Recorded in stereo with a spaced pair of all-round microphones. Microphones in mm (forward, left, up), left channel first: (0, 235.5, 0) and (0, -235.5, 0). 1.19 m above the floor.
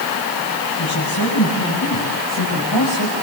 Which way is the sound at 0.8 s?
45° left (ahead or behind).